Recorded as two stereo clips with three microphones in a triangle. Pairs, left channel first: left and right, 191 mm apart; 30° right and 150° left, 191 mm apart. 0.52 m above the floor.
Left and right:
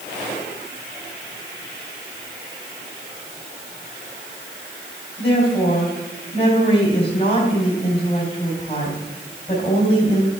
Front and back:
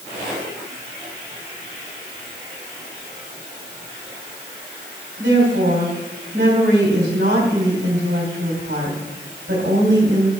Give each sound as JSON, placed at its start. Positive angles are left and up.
{"t": 5.2, "sound": "a woman speaking", "azimuth_deg": 150, "distance_m": 3.0}